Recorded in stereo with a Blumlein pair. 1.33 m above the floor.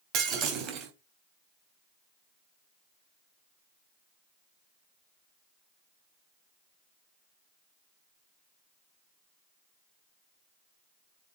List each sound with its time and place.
0.1 s breaking glass: 35° right, 3 m